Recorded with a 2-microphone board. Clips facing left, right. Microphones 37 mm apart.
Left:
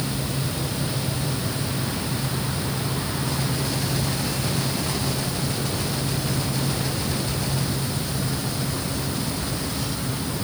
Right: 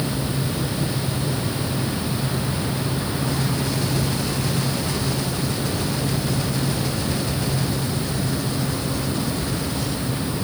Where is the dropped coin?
I don't hear a dropped coin.